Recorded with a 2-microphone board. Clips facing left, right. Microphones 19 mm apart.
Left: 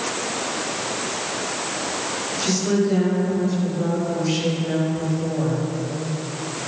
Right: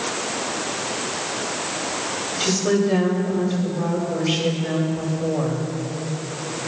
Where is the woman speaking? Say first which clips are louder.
Right 1 dB; 65° right (ahead or behind), 4 m.